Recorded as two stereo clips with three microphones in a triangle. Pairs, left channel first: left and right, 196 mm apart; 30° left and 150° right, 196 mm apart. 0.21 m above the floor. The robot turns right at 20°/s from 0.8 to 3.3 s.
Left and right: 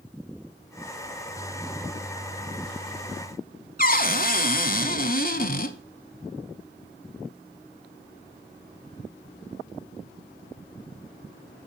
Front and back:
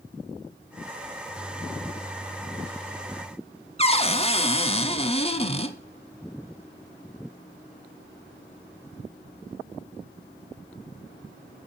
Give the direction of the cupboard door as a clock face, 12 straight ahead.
9 o'clock.